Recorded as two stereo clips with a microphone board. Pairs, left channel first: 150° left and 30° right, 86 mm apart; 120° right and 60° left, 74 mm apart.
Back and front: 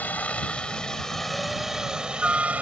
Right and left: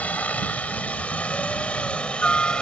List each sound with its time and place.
0.0 s a helicopter: 165° right; by 2.6 s 65° right